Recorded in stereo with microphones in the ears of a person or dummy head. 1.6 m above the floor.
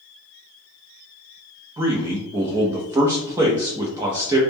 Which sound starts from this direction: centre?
A man speaking, at 1.8 s.